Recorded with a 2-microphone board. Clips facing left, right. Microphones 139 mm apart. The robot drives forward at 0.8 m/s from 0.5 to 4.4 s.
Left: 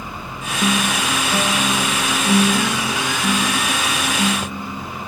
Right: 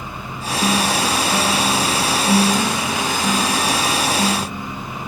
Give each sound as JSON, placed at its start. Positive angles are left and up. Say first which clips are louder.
{"t": 0.6, "sound": "a guitar", "louder": "right 1 dB", "side_deg": 10}